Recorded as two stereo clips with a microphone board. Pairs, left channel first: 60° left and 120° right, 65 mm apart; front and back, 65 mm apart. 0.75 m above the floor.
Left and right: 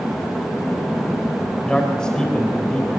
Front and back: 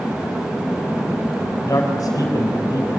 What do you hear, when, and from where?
1.6 s a man speaking: 20° right, 3.5 m